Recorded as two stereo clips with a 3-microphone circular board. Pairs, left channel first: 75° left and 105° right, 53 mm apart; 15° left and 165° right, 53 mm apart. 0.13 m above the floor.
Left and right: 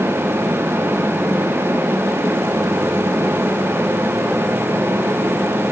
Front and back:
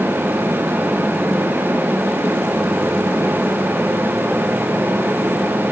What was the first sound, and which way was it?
Only background noise.